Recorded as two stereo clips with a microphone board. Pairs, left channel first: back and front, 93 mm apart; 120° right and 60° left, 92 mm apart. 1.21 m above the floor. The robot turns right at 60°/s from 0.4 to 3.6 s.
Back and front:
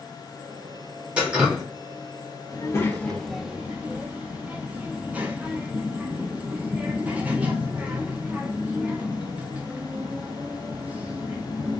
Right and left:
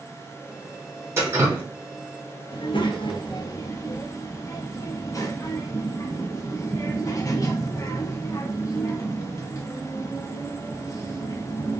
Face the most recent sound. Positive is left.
turn(degrees=-70)